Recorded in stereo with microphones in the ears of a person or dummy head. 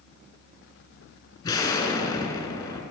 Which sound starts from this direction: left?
An explosion, at 1.4 s.